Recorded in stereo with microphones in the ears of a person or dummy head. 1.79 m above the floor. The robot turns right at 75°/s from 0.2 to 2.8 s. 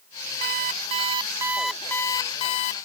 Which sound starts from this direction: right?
An alarm clock, at 0.4 s.